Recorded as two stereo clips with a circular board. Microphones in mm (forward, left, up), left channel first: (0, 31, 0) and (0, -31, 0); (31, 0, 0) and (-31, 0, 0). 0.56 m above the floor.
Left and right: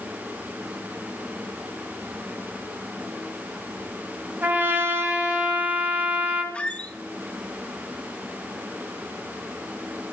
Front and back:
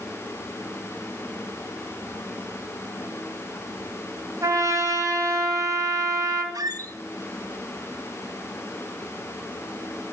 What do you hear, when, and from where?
4.4 s a trumpet: 150° right, 2.5 m
6.5 s a squeak: 160° left, 0.8 m